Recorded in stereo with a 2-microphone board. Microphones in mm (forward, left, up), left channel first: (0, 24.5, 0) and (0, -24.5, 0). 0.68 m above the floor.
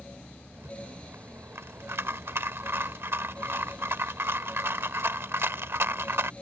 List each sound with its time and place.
0.5 s a rattle: 60° right (ahead or behind)